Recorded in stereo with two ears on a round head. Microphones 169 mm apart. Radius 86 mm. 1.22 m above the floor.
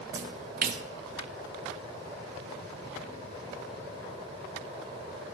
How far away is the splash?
About 0.7 m.